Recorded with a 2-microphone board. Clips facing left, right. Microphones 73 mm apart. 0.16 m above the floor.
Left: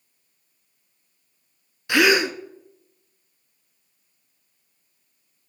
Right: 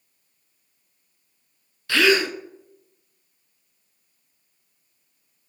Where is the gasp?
15° left (ahead or behind), 0.5 m.